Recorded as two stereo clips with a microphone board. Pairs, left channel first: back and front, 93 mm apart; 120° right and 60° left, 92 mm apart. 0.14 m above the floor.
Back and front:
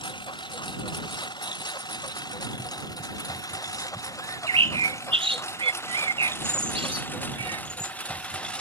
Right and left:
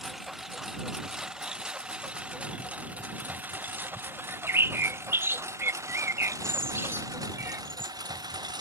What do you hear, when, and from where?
0.0 s a lawn mower: 150° left; by 8.6 s 100° left
4.2 s a bird: 5° right